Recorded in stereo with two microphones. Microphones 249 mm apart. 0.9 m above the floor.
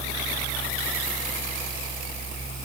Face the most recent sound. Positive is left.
No sound to turn to.